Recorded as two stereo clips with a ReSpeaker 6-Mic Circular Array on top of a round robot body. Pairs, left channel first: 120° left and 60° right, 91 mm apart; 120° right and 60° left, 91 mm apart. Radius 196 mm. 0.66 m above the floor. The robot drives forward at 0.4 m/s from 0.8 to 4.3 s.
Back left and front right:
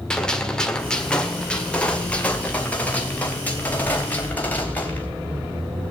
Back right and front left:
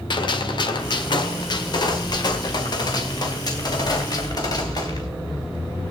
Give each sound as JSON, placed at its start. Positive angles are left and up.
{"t": 0.1, "sound": "a gunshot", "azimuth_deg": -155, "distance_m": 1.7}